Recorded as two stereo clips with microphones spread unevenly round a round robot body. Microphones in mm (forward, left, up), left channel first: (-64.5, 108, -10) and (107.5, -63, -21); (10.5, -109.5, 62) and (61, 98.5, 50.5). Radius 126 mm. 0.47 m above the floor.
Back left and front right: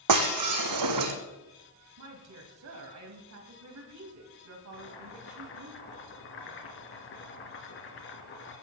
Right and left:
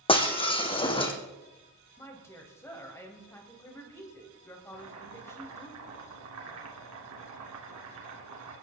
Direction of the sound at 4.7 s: 95° left.